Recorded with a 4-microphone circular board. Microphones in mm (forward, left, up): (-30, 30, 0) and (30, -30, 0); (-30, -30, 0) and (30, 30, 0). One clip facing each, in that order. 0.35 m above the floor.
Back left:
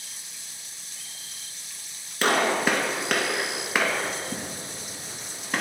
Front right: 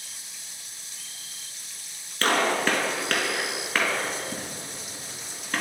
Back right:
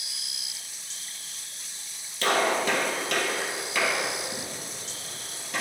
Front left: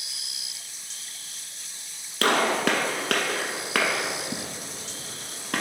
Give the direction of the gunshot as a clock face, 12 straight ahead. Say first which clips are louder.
Back left 1 dB, front left 2 dB; 10 o'clock.